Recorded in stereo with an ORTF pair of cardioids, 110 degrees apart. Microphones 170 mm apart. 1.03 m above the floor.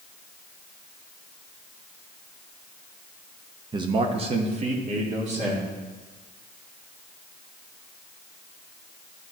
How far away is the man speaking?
About 0.6 m.